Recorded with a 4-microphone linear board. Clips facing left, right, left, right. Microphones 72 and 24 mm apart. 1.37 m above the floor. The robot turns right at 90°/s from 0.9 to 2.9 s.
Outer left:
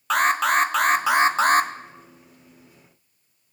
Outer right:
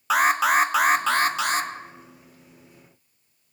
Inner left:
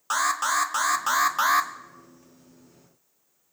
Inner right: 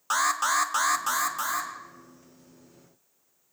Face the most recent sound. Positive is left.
turn(degrees=175)